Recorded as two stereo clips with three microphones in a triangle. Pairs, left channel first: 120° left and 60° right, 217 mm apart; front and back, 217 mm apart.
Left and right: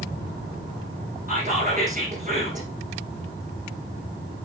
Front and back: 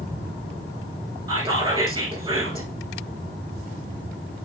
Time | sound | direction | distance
1.3 | whispering | 110° right | 4 m